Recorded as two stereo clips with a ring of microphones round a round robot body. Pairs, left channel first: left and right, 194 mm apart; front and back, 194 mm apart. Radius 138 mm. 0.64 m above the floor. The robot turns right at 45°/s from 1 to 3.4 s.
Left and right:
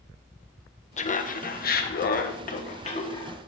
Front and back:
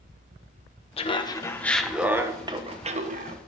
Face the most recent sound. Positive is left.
turn(degrees=160)